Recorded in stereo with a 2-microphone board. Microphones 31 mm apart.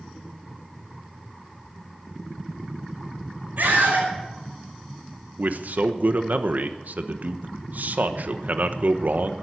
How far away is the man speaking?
About 1.1 m.